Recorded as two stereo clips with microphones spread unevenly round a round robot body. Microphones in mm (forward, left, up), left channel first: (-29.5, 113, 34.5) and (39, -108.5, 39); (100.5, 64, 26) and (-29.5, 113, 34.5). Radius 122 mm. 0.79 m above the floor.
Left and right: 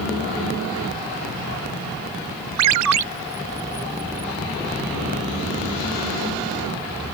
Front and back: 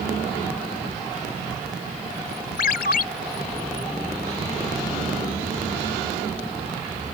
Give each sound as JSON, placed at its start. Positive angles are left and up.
{"t": 2.6, "sound": "a ringtone", "azimuth_deg": -60}